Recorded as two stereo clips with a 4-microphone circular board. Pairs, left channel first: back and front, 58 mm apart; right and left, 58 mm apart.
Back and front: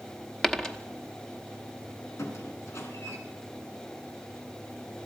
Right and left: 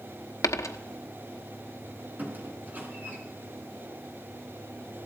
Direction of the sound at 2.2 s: 150° left.